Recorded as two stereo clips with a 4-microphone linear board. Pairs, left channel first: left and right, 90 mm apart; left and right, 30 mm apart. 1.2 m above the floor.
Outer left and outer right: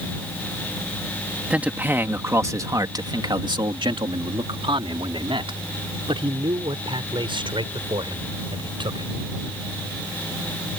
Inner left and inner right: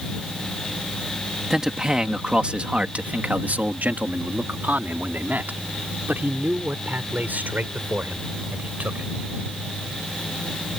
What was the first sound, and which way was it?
A man speaking, 15° right (ahead or behind).